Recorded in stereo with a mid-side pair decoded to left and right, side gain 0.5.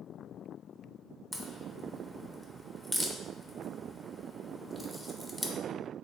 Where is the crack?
Straight ahead, 0.6 m.